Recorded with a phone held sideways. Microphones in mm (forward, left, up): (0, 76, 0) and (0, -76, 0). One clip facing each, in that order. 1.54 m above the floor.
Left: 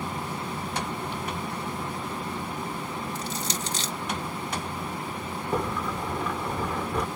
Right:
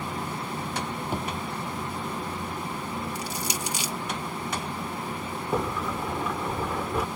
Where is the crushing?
10° right (ahead or behind).